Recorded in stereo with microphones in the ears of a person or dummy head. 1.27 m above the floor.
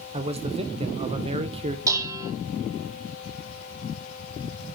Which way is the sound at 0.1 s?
25° right (ahead or behind).